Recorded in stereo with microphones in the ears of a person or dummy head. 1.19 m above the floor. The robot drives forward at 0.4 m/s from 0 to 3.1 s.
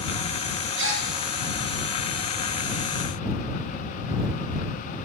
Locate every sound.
0.8 s a gasp: 60° right (ahead or behind), 1.3 m; by 1.1 s 65° right (ahead or behind), 1.3 m